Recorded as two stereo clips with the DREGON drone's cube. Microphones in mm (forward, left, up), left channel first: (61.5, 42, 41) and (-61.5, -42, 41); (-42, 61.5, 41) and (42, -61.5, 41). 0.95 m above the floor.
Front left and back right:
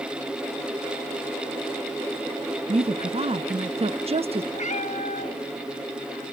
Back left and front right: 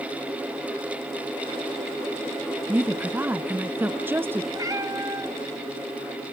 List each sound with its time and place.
2.7 s a woman speaking: 125° right, 0.6 m
4.5 s a cat meowing: 5° left, 1.1 m